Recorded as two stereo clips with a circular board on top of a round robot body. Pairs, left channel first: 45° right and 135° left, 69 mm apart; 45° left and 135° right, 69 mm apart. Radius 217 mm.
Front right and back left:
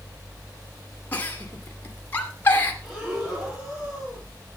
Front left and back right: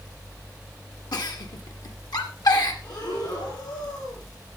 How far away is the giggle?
About 2 m.